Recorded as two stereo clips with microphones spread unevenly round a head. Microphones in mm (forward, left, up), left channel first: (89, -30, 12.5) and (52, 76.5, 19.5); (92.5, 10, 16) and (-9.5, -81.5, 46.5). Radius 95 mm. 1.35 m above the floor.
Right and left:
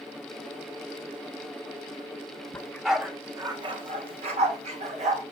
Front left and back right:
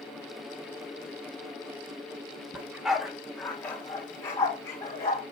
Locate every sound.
2.5 s a dog barking: 130° right, 0.8 m; by 5.2 s 120° left, 1.9 m